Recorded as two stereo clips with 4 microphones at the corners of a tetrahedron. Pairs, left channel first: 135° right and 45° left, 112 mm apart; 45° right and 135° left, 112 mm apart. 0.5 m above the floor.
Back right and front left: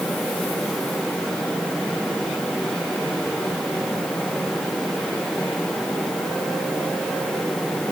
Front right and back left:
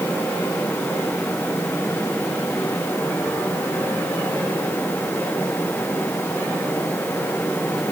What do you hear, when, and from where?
Only background noise.